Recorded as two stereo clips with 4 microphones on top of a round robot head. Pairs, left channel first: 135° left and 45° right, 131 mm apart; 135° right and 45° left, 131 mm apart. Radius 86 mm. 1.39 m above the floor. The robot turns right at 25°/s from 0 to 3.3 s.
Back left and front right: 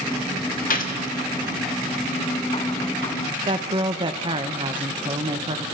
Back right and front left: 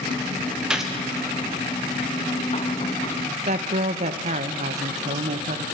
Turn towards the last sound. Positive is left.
turn(degrees=10)